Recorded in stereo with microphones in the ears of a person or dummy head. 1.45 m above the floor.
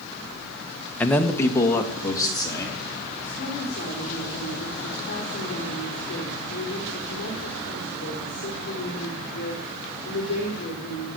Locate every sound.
1.0 s a man speaking: 5° left (ahead or behind), 1.0 m; by 2.8 s 15° left (ahead or behind), 3.5 m
3.2 s a woman speaking: 45° left (ahead or behind), 4 m